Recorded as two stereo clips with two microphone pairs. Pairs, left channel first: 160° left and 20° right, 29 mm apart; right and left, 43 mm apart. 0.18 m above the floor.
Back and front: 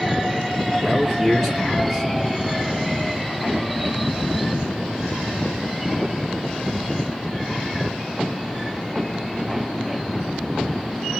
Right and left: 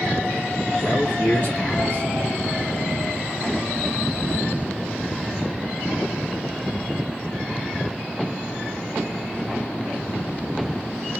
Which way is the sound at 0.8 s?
105° right.